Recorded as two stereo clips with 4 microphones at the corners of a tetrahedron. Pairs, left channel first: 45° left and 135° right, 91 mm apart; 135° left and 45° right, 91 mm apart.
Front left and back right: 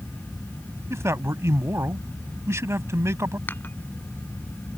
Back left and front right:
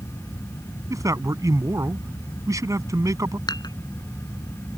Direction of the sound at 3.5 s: 110° left.